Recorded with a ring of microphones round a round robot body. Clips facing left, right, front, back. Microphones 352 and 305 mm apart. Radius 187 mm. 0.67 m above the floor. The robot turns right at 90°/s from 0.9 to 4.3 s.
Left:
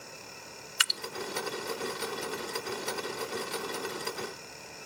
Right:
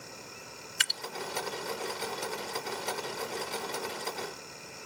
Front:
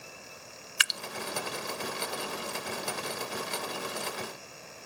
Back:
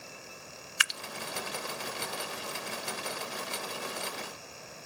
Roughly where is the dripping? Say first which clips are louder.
Left 2 dB, front 2 dB; ahead.